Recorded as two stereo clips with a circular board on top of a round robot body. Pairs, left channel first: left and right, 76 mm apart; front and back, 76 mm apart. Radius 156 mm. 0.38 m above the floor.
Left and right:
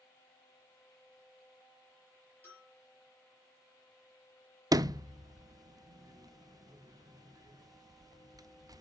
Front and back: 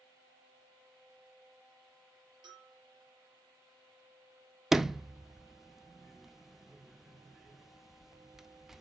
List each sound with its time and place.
2.4 s a bell: 155° left, 5 m
4.7 s a sliding door: 95° right, 0.6 m